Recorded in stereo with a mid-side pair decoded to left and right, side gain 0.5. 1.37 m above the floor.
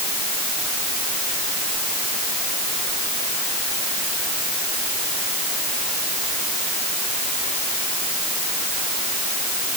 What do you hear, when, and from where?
Only background noise.